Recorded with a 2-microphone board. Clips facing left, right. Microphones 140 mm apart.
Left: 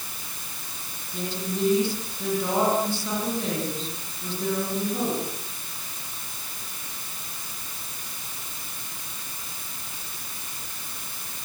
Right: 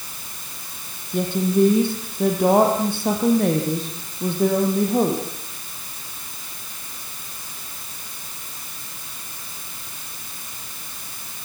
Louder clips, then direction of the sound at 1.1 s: Right 11 dB; 50° right (ahead or behind).